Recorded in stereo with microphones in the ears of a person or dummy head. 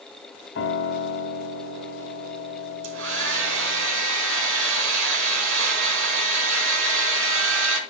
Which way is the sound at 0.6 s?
70° left (ahead or behind).